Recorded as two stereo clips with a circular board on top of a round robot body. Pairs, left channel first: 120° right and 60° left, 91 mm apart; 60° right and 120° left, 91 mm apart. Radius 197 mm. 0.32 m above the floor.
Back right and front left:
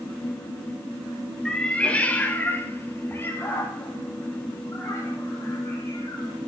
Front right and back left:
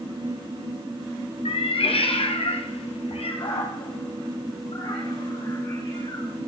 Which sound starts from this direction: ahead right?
A cat meowing, at 1.4 s.